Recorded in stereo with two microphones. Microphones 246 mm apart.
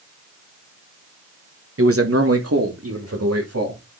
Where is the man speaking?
60° right (ahead or behind), 1.0 m; by 3.8 s 80° right, 3 m.